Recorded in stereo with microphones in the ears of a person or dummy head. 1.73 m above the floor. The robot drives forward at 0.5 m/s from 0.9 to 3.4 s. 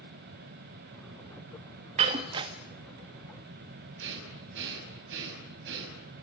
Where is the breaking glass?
25° right (ahead or behind), 1.2 m; by 2.5 s 20° right (ahead or behind), 1.3 m.